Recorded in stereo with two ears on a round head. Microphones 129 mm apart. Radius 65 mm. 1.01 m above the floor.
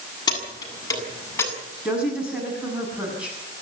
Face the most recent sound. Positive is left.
turn(degrees=-10)  # may be behind; listen again after turning